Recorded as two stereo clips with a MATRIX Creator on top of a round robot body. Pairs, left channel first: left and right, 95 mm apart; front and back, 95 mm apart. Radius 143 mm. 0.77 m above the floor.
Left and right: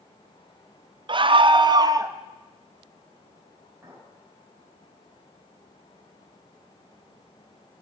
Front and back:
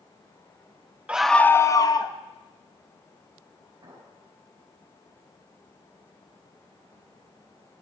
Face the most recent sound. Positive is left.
turn(degrees=-145)